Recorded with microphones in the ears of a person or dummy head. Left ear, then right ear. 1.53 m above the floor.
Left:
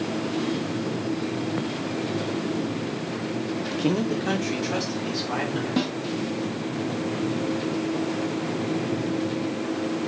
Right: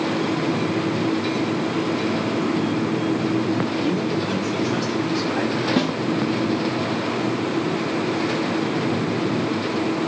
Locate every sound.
3.7 s a man speaking: 60° left (ahead or behind), 0.6 m
5.8 s a snare drum: 15° right (ahead or behind), 1.3 m